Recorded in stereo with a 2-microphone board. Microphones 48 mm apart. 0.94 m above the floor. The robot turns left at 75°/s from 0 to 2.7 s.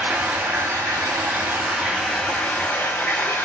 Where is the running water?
25° right, 1.6 m; by 3.5 s 130° left, 1.6 m.